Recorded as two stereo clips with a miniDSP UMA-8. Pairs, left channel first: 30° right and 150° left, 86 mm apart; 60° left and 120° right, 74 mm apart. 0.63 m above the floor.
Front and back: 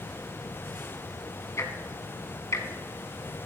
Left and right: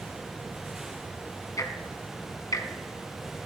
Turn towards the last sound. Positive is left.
turn(degrees=25)